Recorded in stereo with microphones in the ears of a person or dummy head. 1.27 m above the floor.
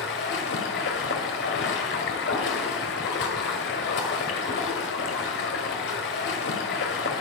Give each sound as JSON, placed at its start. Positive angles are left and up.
{"t": 0.0, "sound": "running water", "side_deg": 60, "distance_m": 2.0}